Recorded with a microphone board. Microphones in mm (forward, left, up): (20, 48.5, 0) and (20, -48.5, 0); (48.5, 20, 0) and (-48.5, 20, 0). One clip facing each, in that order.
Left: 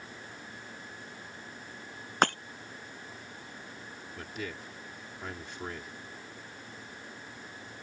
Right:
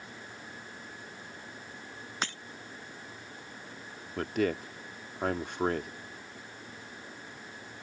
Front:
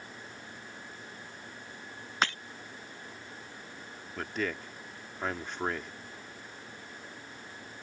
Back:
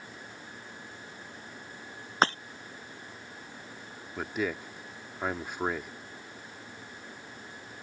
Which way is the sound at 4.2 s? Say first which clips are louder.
Right 12 dB, back 2 dB; 100° right.